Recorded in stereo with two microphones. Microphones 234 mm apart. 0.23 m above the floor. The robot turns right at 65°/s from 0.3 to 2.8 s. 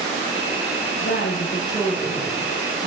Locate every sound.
1.0 s a woman speaking: 115° left, 8 m; by 2.9 s 130° right, 8 m